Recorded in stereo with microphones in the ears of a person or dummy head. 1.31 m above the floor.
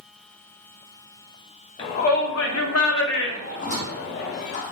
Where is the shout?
35° left (ahead or behind), 0.6 m.